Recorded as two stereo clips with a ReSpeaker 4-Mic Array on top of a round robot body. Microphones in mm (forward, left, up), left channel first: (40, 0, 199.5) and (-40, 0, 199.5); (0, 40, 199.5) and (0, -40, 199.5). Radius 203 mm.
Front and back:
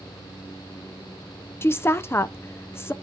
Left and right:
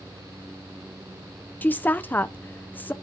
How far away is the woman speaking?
About 0.6 m.